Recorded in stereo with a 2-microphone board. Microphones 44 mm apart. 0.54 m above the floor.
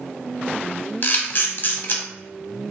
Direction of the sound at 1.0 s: 50° left (ahead or behind).